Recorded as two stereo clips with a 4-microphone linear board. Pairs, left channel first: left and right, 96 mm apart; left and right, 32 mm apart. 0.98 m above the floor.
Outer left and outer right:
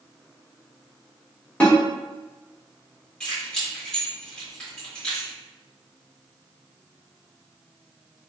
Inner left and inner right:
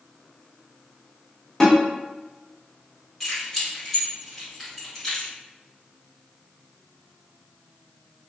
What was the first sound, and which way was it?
A snare drum, 15° left (ahead or behind).